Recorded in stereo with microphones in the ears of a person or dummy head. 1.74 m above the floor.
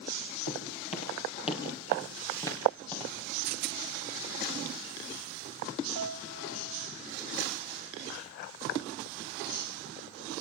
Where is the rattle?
50° right (ahead or behind), 0.8 m.